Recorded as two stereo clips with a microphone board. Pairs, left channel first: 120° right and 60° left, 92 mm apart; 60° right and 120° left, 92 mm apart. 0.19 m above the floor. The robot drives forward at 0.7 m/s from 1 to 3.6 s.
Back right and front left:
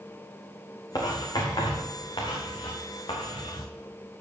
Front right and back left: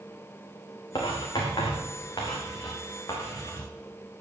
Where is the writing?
85° right, 4 m; by 3.7 s 110° right, 4.5 m.